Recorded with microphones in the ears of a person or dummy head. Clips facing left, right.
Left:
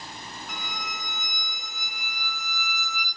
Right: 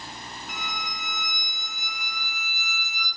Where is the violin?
40° left (ahead or behind), 3 m.